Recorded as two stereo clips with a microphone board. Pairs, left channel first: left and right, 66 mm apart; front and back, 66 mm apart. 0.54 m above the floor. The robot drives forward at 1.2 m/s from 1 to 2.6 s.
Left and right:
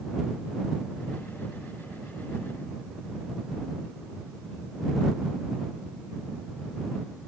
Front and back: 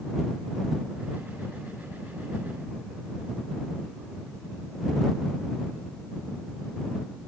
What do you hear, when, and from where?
Only background noise.